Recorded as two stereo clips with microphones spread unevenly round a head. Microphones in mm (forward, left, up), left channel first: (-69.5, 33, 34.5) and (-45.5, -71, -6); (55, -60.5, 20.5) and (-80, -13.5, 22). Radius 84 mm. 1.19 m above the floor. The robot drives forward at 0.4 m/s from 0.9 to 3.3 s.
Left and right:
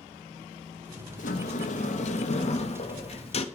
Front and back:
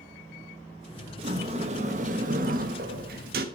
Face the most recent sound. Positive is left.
turn(degrees=130)